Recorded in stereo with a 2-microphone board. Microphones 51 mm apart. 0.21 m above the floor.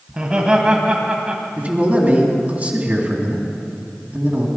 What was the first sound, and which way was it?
Laughter, 20° right (ahead or behind).